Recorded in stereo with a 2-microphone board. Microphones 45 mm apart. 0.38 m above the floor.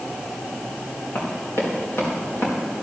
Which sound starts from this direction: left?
Running footsteps, at 1.1 s.